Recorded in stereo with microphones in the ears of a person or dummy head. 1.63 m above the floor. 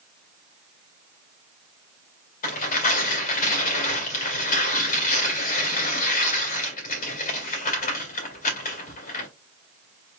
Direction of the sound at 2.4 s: 50° left (ahead or behind).